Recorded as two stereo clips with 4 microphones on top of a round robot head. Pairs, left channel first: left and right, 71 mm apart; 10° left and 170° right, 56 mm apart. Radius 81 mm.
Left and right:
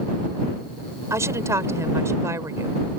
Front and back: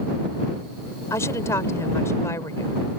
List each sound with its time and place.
1.1 s a woman speaking: 40° right